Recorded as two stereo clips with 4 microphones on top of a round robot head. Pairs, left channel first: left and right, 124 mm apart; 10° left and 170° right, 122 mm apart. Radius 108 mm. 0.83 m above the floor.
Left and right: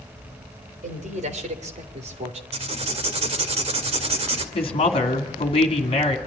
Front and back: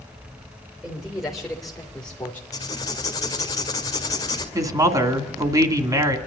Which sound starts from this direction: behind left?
A woman speaking, at 4.5 s.